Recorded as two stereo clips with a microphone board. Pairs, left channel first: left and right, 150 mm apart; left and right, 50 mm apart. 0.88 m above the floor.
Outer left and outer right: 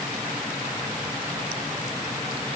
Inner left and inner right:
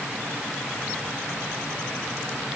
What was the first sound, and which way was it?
Only background noise.